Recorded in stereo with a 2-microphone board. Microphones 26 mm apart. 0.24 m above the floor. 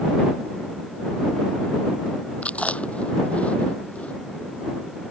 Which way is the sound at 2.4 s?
60° left (ahead or behind).